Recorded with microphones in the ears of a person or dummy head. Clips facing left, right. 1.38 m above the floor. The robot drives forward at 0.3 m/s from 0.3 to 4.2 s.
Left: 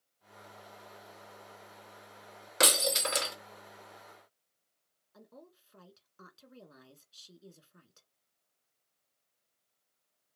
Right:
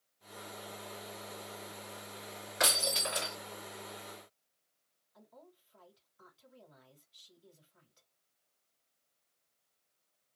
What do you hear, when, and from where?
2.6 s breaking glass: 55° left (ahead or behind), 1.6 m
5.1 s a woman speaking: 80° left, 1.6 m